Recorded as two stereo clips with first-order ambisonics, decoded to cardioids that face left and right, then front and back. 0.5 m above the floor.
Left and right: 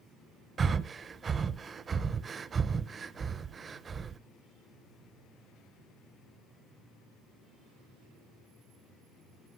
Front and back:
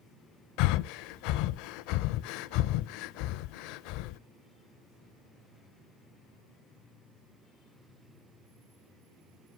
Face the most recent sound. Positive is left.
turn(degrees=-20)